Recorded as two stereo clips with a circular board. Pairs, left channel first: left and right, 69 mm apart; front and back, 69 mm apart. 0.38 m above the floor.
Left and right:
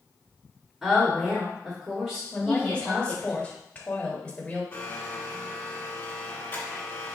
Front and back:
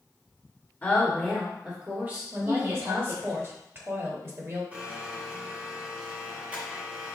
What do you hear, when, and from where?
0.8 s a woman speaking: 5° right, 1.4 m; by 3.3 s 170° right, 2 m
2.3 s a woman speaking: 150° left, 1.1 m
4.7 s a blender: 125° left, 1.2 m